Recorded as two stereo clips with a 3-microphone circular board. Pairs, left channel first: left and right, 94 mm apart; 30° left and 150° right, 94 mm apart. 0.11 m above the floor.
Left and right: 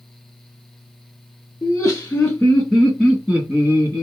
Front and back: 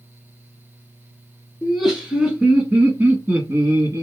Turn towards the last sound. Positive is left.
turn(degrees=-120)